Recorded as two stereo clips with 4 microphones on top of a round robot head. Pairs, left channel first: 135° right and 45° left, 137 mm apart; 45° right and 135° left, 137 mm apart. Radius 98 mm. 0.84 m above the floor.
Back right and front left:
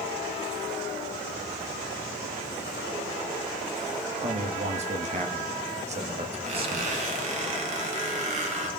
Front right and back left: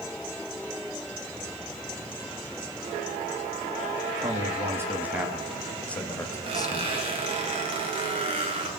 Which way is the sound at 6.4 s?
85° left.